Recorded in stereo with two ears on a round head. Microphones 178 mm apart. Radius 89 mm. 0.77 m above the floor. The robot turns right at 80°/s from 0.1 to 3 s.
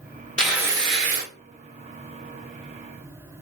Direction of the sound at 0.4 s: 175° left.